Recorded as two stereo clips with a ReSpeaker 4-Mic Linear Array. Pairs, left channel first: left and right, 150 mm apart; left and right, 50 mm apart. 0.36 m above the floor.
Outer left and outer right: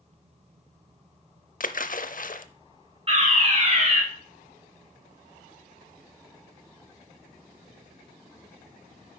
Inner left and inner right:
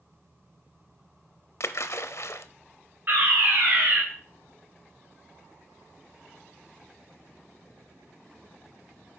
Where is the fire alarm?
40° right (ahead or behind), 3 m.